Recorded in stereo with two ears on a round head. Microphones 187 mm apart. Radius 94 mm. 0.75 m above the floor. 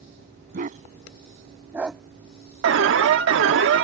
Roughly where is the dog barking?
Right.